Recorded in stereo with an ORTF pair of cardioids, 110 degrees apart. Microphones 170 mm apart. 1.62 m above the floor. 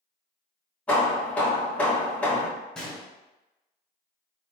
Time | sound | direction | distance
0.9 | hammering | 5° left | 1.6 m
2.8 | a gunshot | 5° left | 1.4 m